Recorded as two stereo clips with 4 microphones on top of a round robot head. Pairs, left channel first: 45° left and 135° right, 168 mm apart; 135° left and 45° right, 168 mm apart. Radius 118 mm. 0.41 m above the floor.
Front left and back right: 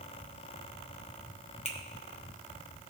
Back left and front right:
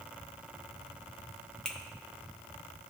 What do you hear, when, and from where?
1.6 s a finger snap: 55° left, 1.3 m